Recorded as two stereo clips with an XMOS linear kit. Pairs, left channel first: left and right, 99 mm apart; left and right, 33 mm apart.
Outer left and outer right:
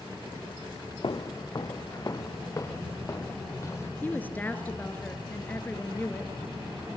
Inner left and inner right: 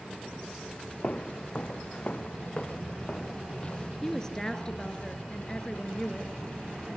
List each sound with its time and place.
1.0 s footsteps: 50° left (ahead or behind), 0.7 m; by 3.9 s 25° left (ahead or behind), 2 m
4.0 s a woman speaking: 20° left (ahead or behind), 2 m